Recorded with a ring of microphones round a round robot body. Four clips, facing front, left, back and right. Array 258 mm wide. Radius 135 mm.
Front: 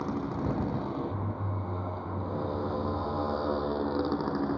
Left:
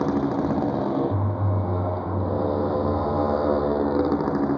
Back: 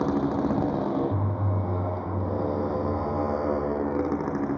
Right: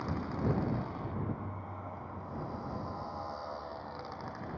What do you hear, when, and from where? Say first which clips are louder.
0.0 s a motorcycle: left 13 dB, back 8 dB; 120° left; by 4.6 s 100° left